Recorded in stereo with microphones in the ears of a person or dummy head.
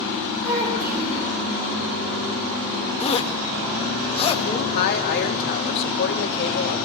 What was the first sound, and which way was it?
A child speaking, 50° right (ahead or behind).